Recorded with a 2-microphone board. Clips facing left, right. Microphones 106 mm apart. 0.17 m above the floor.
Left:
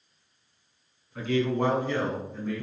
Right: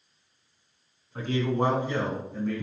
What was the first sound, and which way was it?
A man speaking, 40° right (ahead or behind).